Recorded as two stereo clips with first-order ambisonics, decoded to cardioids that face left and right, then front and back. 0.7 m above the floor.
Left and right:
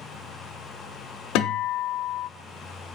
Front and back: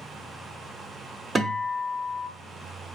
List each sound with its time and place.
1.4 s a guitar: 105° left, 0.6 m